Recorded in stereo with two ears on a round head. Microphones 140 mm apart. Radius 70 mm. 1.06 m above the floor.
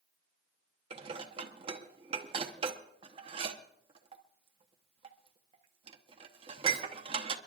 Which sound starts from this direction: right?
Dishes clattering, at 0.9 s.